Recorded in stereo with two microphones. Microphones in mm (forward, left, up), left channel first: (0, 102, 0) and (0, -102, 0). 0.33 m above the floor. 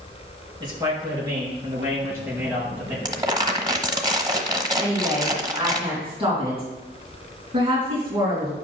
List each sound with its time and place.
0.6 s a man speaking: 20° right (ahead or behind), 3.5 m; by 3.0 s 10° right (ahead or behind), 5.5 m
3.0 s crumpling: 20° right (ahead or behind), 0.9 m
4.8 s a woman speaking: 30° right (ahead or behind), 3.5 m